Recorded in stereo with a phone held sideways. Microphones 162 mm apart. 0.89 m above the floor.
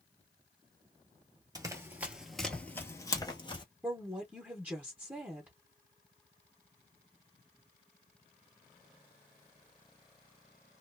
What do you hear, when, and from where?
1.6 s running footsteps: 20° right (ahead or behind), 0.9 m; by 3.6 s 30° left (ahead or behind), 1.1 m
3.8 s a woman speaking: 10° right (ahead or behind), 0.8 m